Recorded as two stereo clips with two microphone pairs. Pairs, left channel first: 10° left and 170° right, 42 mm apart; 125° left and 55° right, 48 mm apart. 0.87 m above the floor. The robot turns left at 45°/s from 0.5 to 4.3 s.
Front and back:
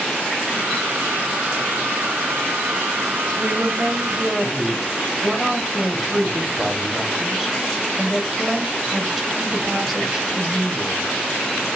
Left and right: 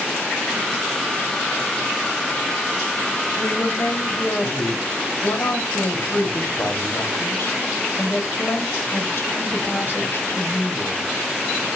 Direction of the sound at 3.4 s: 150° left.